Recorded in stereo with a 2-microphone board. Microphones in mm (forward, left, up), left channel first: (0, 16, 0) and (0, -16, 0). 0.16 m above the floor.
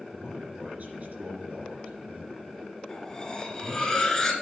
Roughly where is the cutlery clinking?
Centre.